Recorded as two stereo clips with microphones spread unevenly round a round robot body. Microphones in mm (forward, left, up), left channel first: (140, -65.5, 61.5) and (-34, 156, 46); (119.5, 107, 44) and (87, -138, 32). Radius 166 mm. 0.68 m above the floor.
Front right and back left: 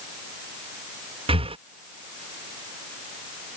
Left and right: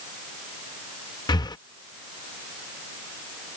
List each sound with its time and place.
1.3 s breathing: 135° left